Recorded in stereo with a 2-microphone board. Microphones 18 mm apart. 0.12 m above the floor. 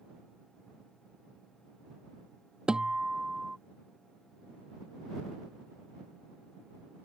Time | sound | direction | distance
2.7 | a guitar | 50° right (ahead or behind) | ?